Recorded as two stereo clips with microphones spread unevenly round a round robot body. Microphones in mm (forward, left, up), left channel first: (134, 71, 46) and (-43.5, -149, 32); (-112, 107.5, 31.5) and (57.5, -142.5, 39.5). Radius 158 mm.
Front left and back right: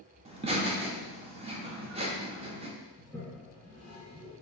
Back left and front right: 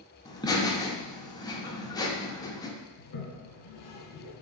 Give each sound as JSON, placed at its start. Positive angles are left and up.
{"t": 0.2, "sound": "laughter", "azimuth_deg": -170, "distance_m": 0.7}
{"t": 3.0, "sound": "a toilet flushing", "azimuth_deg": 140, "distance_m": 1.0}